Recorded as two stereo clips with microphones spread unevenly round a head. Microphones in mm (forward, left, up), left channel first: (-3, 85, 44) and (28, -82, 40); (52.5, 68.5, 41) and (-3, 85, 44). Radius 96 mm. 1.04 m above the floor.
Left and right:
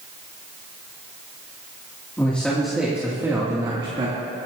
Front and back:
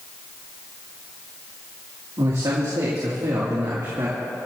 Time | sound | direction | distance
2.2 | a man speaking | straight behind | 2.5 m